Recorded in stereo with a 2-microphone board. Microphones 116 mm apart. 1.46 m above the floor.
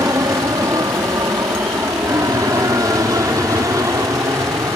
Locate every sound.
0.0 s an aircraft: 30° right (ahead or behind)